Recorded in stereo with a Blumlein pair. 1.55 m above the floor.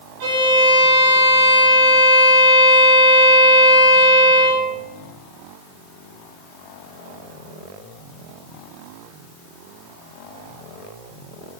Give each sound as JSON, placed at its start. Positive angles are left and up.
{"t": 0.2, "sound": "a violin", "azimuth_deg": -45, "distance_m": 8.0}